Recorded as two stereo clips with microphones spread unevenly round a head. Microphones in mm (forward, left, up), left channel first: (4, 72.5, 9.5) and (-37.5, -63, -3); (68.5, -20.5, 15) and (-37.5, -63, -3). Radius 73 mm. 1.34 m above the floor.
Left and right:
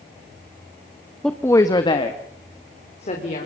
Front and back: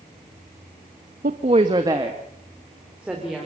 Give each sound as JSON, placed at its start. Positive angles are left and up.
{"t": 1.2, "sound": "a woman speaking", "azimuth_deg": 160, "distance_m": 1.0}